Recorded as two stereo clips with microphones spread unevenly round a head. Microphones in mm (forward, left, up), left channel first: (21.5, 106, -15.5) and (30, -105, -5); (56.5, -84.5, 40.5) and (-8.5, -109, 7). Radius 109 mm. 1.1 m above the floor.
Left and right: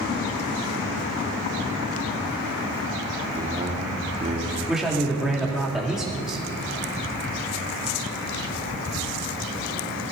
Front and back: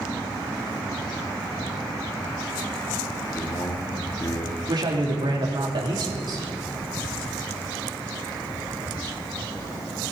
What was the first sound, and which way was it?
A man speaking, 25° right.